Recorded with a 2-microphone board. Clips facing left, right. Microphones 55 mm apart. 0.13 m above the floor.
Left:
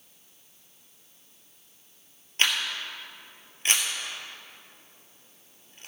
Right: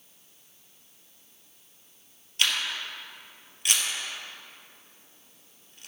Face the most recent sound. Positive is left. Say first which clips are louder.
# left 1 dB
turn(degrees=35)  # may be behind; listen again after turning